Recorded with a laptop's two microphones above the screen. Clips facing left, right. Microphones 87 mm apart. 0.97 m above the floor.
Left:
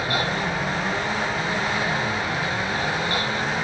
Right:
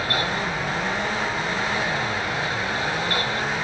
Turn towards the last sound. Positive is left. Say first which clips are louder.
# left 1 dB
turn(degrees=5)  # may be behind; listen again after turning